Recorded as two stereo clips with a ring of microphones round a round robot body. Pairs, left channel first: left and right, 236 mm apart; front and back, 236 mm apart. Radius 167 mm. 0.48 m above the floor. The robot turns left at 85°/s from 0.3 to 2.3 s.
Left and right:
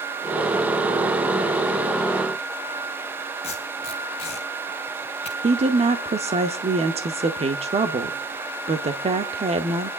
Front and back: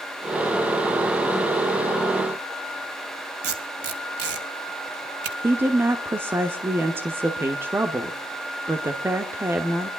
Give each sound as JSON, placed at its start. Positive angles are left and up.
{"t": 3.4, "sound": "tape being pulled", "azimuth_deg": 160, "distance_m": 2.5}
{"t": 5.4, "sound": "a woman speaking", "azimuth_deg": -110, "distance_m": 1.1}